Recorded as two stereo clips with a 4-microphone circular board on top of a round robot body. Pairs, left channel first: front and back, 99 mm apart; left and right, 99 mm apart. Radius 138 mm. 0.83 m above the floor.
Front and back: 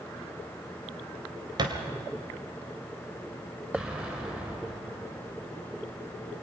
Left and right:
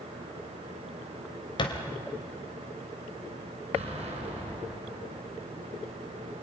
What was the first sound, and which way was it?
A thud, 130° left.